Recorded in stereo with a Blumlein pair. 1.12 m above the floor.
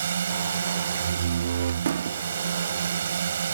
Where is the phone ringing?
I don't hear a phone ringing.